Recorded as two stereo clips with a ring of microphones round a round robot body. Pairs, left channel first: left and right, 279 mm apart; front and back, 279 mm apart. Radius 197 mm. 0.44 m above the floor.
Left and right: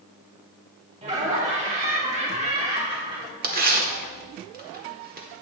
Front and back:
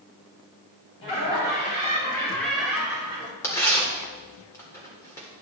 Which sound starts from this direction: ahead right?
Laughter, at 1.0 s.